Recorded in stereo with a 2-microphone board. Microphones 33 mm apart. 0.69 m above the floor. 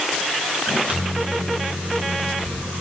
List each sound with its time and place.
0.7 s a microwave: 35° right (ahead or behind), 3 m